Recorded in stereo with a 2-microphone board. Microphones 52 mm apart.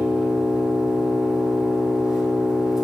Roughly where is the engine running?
Centre.